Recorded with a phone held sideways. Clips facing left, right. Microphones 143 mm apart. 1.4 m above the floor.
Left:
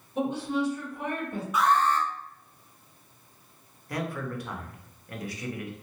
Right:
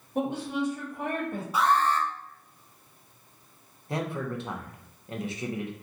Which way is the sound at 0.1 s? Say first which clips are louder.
Left 1 dB; 50° right (ahead or behind).